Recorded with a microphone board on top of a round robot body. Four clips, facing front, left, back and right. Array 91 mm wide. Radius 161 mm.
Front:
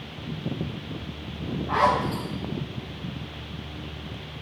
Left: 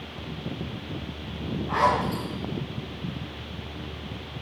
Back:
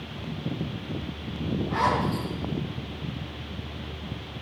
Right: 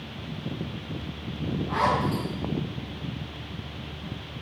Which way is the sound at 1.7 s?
15° left.